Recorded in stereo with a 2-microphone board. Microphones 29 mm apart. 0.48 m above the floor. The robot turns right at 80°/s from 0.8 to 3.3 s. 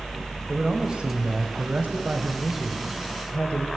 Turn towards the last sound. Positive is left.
turn(degrees=45)